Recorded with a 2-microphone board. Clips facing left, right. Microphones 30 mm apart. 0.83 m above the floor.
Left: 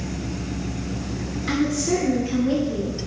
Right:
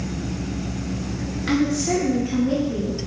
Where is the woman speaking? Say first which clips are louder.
Right 1 dB; 30° right (ahead or behind), 0.9 m; by 3.0 s 25° left (ahead or behind), 1.0 m.